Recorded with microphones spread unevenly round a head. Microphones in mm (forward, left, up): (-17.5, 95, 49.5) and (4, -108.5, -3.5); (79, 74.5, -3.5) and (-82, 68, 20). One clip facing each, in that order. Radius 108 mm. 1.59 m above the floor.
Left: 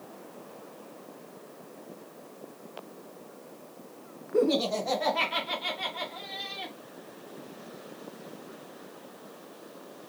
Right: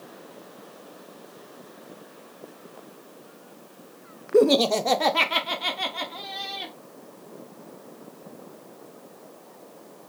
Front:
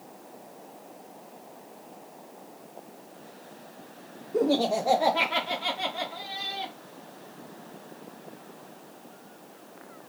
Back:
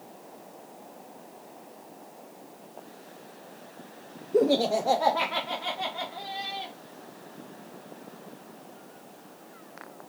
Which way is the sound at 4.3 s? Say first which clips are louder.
Right 7 dB, back 2 dB; 110° right.